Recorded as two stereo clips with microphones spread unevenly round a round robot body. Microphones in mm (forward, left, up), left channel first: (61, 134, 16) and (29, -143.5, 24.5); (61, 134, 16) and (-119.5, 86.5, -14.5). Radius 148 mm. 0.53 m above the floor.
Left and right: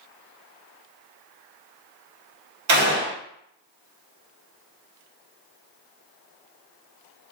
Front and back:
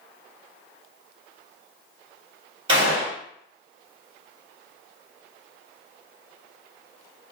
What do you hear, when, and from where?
2.7 s a gunshot: 105° right, 1.5 m